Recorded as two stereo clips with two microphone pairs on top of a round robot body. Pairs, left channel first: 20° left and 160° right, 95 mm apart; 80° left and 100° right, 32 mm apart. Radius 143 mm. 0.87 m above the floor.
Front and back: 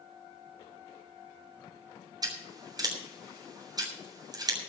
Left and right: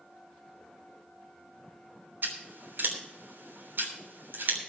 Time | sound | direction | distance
2.2 | scissors | 115° right | 3.5 m